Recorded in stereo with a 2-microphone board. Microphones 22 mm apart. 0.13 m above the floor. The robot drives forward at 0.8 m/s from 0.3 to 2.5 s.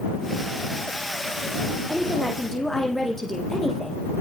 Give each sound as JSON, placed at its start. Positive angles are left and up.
{"t": 1.9, "sound": "a woman speaking", "side_deg": 30, "distance_m": 4.5}